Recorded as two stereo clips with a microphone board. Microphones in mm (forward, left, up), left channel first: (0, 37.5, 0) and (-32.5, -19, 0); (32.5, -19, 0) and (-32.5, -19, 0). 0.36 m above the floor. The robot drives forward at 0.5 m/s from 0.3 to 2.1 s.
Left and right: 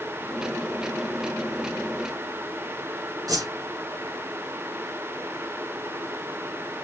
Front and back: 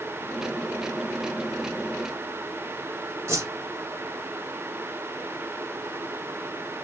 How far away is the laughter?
I don't hear laughter.